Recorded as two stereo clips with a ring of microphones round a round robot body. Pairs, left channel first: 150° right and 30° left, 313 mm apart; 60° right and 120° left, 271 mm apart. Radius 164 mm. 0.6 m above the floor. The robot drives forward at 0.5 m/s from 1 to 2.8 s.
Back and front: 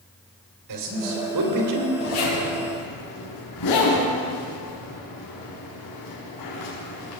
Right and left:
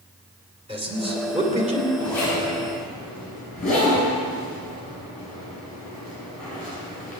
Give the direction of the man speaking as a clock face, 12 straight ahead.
10 o'clock.